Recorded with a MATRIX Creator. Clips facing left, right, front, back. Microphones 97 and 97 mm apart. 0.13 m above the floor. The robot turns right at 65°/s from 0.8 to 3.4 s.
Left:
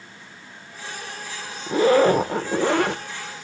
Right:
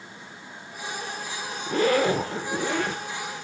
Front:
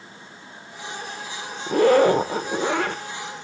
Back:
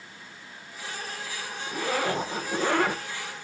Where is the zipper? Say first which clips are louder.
Left 6 dB, front 13 dB; 15° left, 0.6 m; by 3.0 s 105° left, 0.6 m.